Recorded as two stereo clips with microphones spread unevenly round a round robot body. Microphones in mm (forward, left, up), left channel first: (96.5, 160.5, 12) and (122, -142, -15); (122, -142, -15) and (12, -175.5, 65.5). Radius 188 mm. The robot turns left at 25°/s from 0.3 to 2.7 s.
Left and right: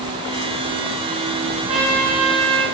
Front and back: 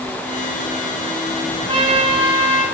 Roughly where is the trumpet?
Behind right.